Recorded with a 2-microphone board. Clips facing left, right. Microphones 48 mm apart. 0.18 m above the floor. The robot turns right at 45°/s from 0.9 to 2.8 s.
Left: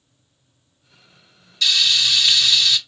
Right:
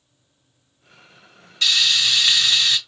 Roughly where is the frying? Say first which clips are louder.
Even; behind right.